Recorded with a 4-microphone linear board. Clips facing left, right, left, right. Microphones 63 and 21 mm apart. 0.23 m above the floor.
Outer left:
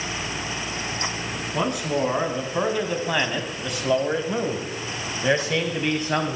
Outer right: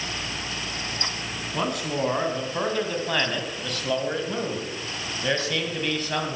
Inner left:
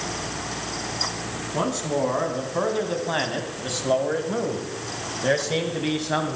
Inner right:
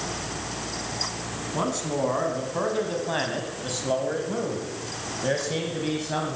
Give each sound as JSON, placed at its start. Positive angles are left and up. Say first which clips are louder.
{"t": 1.5, "sound": "a man speaking", "louder": "outer left 3 dB, inner left 2 dB", "side_deg": 5, "distance_m": 2.5}